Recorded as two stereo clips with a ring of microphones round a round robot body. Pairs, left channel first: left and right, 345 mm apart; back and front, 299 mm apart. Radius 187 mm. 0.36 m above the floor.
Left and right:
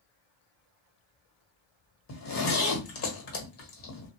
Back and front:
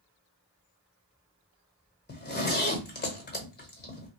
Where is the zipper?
130° left, 1.3 m.